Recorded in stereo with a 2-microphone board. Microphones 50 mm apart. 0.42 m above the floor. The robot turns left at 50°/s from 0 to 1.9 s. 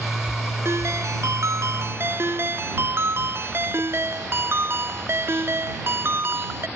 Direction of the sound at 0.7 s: 65° right.